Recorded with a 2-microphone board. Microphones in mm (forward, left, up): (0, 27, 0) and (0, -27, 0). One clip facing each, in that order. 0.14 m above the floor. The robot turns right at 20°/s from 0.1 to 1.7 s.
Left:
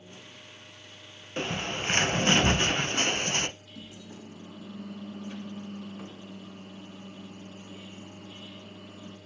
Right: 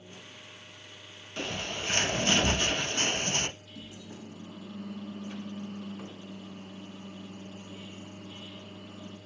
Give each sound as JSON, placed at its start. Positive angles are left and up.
{"t": 1.4, "sound": "a bird", "side_deg": 35, "distance_m": 0.5}
{"t": 3.7, "sound": "a microwave", "side_deg": 10, "distance_m": 1.1}